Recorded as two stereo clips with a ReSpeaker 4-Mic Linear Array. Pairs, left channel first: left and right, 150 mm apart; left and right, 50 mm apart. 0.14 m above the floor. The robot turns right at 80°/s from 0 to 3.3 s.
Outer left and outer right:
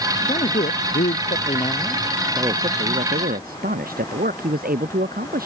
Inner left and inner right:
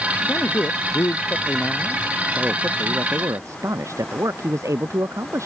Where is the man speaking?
35° left; by 5.5 s 80° right.